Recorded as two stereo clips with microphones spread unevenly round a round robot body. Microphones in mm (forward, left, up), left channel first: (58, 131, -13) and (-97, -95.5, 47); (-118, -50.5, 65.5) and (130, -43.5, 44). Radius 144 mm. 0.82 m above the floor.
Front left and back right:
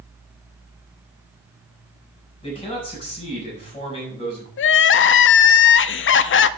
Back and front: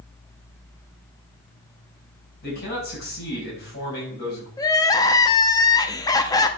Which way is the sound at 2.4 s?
125° left.